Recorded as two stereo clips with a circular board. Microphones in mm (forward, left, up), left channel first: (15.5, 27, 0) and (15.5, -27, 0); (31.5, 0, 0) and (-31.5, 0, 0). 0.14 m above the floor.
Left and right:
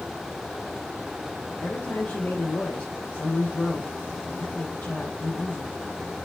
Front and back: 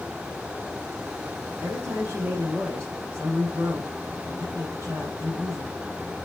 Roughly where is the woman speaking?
Behind left.